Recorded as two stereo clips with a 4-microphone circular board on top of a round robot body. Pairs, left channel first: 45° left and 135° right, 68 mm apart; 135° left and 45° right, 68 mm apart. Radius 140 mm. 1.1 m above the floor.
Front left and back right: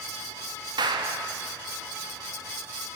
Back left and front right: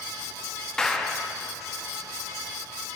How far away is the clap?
About 1.7 m.